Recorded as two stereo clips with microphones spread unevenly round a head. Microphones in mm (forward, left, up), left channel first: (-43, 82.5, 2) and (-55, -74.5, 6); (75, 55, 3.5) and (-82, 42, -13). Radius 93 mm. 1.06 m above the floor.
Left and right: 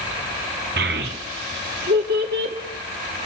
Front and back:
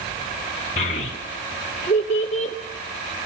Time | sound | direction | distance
0.8 | a child speaking | 55° right | 1.4 m